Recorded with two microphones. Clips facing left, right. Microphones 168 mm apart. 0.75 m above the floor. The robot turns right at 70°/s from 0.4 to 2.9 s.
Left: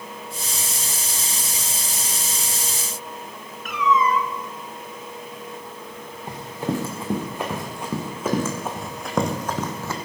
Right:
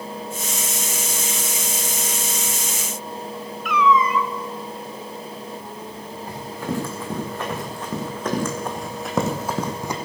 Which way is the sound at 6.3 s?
20° left (ahead or behind).